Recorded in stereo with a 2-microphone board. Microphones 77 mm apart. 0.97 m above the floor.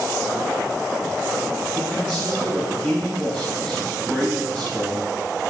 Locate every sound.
1.7 s a man speaking: 20° left (ahead or behind), 4.5 m